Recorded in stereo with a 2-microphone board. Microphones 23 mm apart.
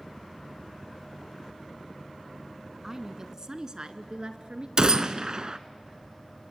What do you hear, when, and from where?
2.8 s a woman speaking: 20° right (ahead or behind), 1.2 m; by 4.7 s 50° right (ahead or behind), 2.0 m
4.8 s a gunshot: 40° right (ahead or behind), 0.7 m